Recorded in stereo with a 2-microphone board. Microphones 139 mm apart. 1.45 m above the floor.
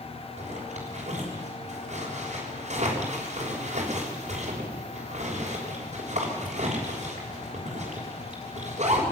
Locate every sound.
0.4 s a zipper: 55° right (ahead or behind), 6.5 m